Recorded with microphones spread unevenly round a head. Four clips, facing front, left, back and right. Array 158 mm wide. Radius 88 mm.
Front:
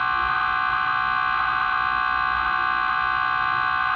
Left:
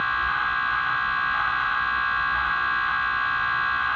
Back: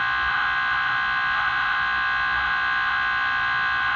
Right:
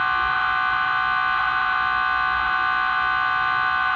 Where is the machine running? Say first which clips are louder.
Right 3 dB, front 2 dB; 30° right, 1.6 m.